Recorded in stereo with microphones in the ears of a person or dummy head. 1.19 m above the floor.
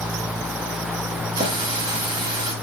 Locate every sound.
1.4 s a running tap: 25° right (ahead or behind), 1.1 m